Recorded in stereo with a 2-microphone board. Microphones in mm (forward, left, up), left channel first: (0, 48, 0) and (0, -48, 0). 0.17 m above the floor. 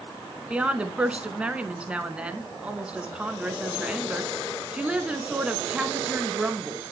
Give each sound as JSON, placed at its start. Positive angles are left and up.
{"t": 0.5, "sound": "a woman speaking", "side_deg": -10, "distance_m": 1.5}